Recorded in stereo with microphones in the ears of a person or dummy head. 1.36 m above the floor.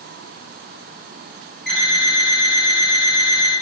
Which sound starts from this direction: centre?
An alarm clock, at 1.7 s.